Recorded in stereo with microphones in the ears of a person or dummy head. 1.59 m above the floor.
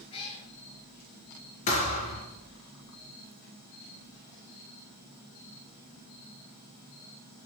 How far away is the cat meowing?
About 2.5 m.